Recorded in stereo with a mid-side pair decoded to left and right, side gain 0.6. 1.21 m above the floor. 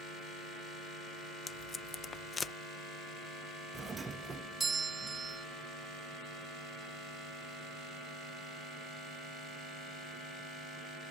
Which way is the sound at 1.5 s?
30° left.